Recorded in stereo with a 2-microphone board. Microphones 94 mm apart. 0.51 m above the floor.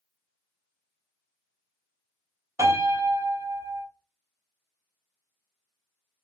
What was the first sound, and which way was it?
A piano, 35° right (ahead or behind).